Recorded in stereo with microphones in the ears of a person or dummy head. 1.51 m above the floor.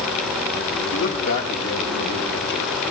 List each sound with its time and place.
0.9 s a man speaking: 70° left (ahead or behind), 8.5 m